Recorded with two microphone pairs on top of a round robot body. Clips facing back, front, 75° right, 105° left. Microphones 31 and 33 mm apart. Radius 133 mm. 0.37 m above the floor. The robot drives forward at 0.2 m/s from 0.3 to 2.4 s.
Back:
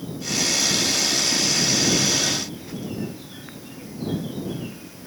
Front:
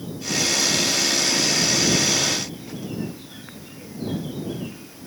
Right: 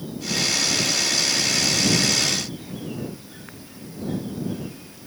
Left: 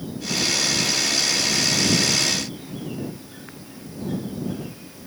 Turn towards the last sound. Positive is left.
No sound to turn to.